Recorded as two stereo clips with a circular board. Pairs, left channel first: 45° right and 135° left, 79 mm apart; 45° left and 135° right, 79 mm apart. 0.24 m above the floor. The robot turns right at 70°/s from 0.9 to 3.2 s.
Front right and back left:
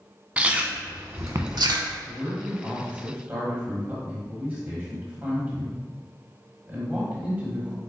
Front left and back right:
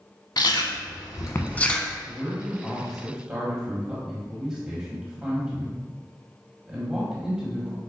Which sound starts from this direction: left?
A man speaking, at 2.0 s.